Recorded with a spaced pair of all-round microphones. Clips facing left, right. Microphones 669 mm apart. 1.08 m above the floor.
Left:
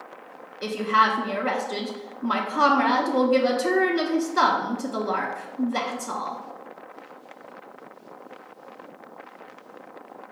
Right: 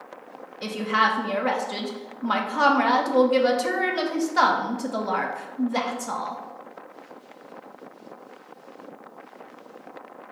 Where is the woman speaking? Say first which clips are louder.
Left 1 dB; 20° right (ahead or behind), 0.5 m.